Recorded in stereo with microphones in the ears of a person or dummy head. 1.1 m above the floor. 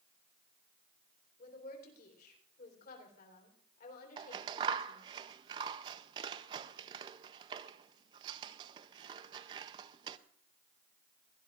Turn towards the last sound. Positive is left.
turn(degrees=-25)  # may be behind; listen again after turning